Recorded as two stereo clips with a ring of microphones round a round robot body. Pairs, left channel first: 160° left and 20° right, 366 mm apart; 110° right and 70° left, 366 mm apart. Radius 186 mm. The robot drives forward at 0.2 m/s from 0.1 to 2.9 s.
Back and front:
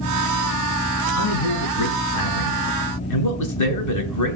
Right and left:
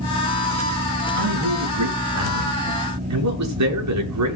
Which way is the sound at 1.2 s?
110° left.